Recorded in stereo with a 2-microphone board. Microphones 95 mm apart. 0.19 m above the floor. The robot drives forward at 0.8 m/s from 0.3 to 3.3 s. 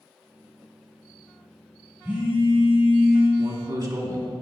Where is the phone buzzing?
20° right (ahead or behind), 1.6 m; by 3.3 s 15° right (ahead or behind), 2.5 m.